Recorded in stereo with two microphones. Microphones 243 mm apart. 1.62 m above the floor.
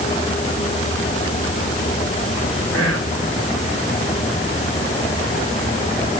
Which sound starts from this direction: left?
Whispering, at 2.7 s.